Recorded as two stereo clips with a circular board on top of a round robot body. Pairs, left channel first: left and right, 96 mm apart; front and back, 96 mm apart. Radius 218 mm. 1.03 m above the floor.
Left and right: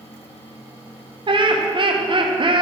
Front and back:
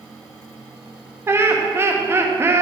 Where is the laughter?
115° right, 1.6 m.